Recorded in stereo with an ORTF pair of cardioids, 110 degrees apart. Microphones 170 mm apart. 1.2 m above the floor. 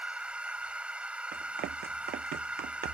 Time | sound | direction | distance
0.0 | a machine running | 5° right | ?
1.3 | running footsteps | 70° right | ?